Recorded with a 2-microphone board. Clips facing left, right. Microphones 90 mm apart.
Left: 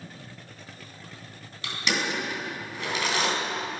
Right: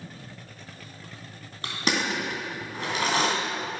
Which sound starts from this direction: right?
Crushing, at 1.6 s.